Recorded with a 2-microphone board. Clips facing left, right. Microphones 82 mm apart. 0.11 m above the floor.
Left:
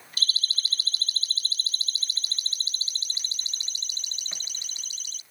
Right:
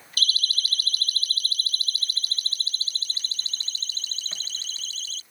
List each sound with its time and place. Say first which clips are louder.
0.2 s a siren: right 3 dB; 25° left (ahead or behind); by 5.2 s 15° left (ahead or behind)